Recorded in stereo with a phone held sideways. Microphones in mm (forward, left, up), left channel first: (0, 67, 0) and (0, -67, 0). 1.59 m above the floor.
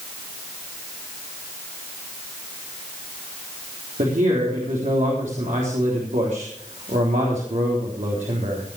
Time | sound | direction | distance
4.0 | a man speaking | 75° right (ahead or behind) | 3.5 m